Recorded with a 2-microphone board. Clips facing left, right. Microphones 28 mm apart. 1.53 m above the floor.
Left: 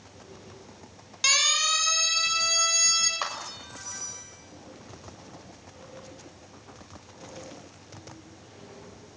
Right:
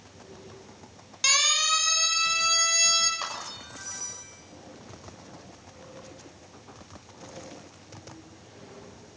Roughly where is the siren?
Centre.